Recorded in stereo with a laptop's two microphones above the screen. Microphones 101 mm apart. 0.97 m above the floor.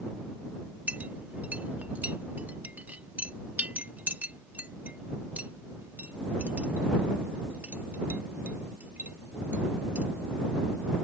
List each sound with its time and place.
0.9 s a clink: 15° right (ahead or behind)